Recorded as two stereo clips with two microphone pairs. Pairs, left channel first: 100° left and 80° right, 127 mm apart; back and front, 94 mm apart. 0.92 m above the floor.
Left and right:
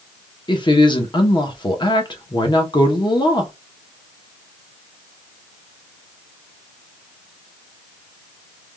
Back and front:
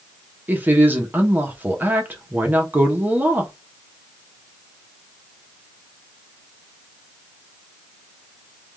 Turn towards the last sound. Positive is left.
turn(degrees=65)